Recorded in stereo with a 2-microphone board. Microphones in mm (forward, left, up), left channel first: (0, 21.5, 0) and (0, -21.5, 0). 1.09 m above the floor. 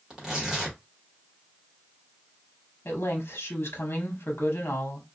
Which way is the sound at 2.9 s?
80° left.